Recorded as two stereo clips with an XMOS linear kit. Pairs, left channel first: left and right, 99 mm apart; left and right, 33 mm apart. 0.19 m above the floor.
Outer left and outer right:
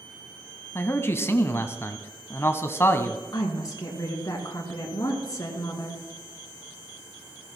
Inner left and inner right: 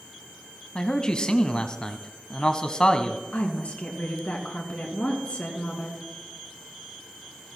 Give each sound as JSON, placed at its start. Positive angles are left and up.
{"t": 0.8, "sound": "a man speaking", "side_deg": 25, "distance_m": 1.1}
{"t": 3.3, "sound": "a woman speaking", "side_deg": 35, "distance_m": 3.0}